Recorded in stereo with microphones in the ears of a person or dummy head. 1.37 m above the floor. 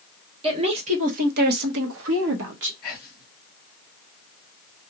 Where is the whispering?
5° left (ahead or behind), 1.6 m.